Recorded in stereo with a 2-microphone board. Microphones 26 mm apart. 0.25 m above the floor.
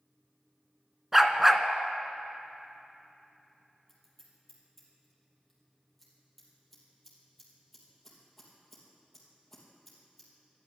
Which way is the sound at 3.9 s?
Centre (ahead or behind).